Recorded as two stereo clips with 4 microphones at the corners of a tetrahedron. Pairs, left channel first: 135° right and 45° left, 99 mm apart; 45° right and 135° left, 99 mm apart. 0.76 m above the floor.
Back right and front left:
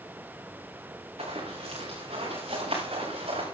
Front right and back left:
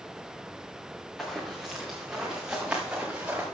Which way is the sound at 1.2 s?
45° left.